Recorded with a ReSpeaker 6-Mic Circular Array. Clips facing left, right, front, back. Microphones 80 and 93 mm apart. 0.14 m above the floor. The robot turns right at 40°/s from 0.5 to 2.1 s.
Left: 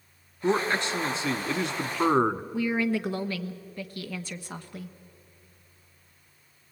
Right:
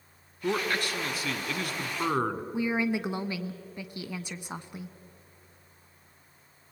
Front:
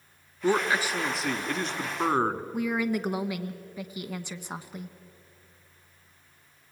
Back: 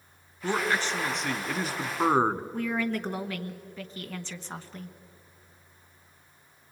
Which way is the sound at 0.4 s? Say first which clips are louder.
Left 4 dB, front 3 dB; 55° left.